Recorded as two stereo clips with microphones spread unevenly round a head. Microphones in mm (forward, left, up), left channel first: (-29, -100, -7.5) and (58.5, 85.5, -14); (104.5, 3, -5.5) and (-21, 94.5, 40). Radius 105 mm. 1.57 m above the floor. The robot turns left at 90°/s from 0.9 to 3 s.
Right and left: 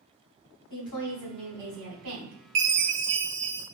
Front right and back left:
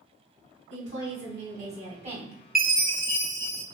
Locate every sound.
0.7 s a woman speaking: 160° right, 2.0 m; by 2.4 s 70° left, 2.0 m
2.5 s a chime: 55° left, 1.2 m; by 3.6 s 15° left, 1.2 m